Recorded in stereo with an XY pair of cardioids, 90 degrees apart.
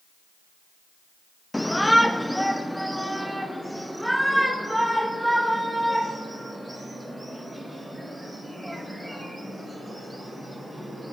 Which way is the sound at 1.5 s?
10° left.